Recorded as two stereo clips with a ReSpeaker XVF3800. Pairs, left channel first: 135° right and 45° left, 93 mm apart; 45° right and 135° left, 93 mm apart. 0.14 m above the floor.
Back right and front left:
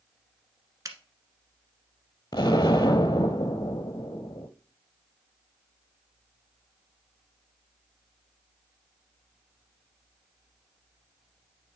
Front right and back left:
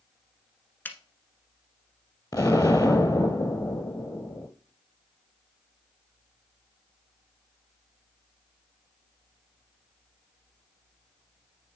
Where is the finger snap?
15° left, 1.2 m.